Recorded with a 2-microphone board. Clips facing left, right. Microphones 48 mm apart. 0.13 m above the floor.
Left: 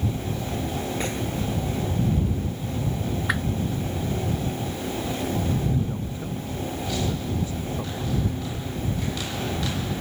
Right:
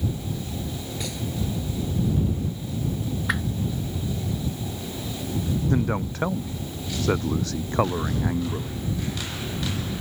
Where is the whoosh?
Centre (ahead or behind).